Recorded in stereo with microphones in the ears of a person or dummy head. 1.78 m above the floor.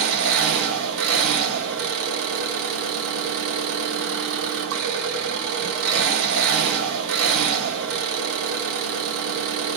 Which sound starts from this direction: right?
An engine running, at 0.0 s.